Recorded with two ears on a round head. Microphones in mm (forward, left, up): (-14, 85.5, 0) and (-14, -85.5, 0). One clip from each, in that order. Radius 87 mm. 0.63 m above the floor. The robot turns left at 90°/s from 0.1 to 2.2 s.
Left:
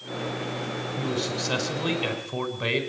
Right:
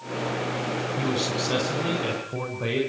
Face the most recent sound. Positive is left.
turn(degrees=95)